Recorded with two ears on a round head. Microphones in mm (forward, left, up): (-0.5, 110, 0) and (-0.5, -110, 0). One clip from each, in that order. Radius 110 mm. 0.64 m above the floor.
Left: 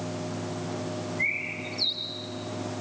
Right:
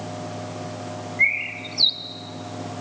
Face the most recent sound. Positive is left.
turn(degrees=-60)  # may be behind; listen again after turning